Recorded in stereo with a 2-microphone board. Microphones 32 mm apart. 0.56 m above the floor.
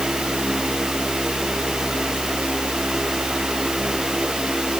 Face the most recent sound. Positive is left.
No sound to turn to.